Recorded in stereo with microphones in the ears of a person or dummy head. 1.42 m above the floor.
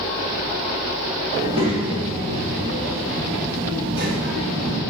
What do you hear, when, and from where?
1.3 s a child speaking: 20° right (ahead or behind), 1.9 m; by 4.8 s 65° right (ahead or behind), 2.5 m